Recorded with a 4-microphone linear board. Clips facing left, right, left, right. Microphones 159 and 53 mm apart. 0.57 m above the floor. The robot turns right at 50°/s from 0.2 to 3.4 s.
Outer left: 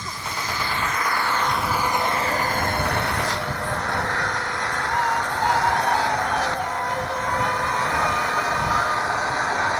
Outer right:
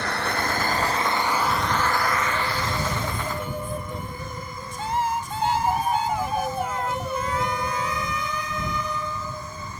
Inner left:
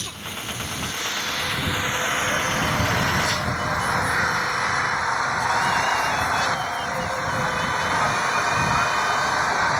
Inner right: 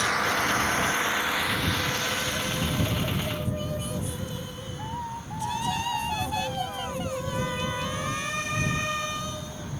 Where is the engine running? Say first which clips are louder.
Outer right 5 dB, inner right 9 dB; 70° right; by 9.8 s 90° left.